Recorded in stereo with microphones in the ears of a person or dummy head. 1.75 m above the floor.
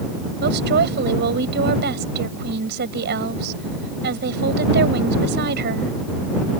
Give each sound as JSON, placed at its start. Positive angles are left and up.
{"t": 0.4, "sound": "a woman speaking", "side_deg": -60}